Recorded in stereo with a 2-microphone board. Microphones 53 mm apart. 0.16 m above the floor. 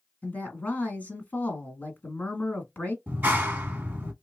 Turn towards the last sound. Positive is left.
turn(degrees=-35)  # may be behind; listen again after turning